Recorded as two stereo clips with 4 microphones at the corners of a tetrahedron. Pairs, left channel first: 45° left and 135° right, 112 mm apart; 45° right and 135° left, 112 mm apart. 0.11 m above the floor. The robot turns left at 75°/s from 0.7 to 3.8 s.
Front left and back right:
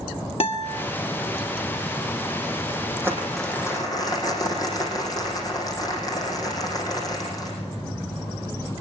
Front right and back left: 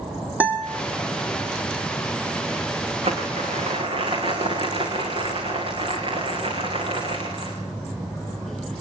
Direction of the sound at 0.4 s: 60° left.